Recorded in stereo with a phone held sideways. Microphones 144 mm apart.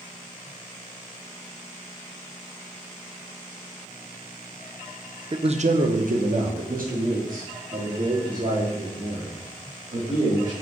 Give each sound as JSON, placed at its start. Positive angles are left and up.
{"t": 5.3, "sound": "a man speaking", "side_deg": -30, "distance_m": 0.5}